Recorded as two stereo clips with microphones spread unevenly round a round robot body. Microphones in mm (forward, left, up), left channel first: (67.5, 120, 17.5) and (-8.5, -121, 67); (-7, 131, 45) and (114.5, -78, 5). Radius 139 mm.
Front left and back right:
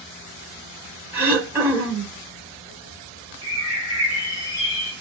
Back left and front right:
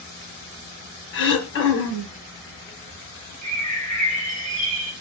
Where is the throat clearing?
165° left, 1.0 m.